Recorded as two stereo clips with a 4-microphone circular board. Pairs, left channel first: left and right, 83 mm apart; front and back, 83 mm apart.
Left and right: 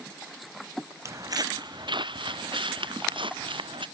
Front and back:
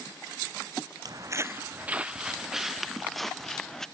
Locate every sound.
1.1 s footsteps: 145° right; by 3.9 s 85° right